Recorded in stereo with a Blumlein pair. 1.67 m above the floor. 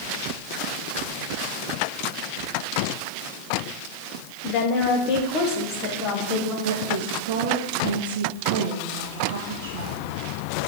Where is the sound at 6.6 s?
60° right, 1.8 m.